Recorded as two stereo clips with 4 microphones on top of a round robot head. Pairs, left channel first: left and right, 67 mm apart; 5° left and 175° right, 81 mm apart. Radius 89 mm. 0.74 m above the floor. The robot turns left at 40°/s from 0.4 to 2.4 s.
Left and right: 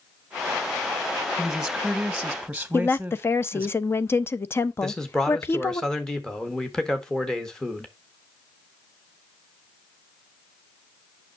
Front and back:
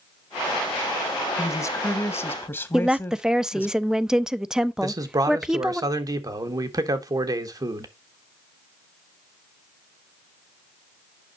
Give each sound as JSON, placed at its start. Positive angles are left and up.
{"t": 1.4, "sound": "a woman speaking", "azimuth_deg": 10, "distance_m": 1.2}
{"t": 2.7, "sound": "a woman speaking", "azimuth_deg": 105, "distance_m": 0.6}
{"t": 4.8, "sound": "a man speaking", "azimuth_deg": 170, "distance_m": 1.5}